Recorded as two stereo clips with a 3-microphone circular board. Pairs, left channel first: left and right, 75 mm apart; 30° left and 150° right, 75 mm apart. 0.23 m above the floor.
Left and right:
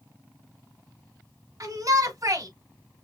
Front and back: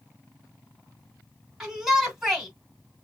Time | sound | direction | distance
1.6 | a shout | 65° right | 3 m